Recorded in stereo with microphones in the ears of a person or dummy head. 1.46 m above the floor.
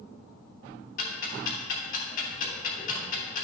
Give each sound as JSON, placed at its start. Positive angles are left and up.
{"t": 1.0, "sound": "ticking", "side_deg": 55, "distance_m": 3.0}